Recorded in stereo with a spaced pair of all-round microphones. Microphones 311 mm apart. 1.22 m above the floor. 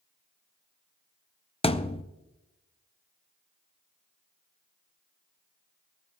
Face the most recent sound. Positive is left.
turn(degrees=20)  # may be behind; listen again after turning